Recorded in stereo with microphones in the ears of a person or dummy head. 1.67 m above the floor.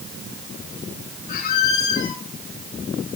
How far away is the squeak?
About 3.5 m.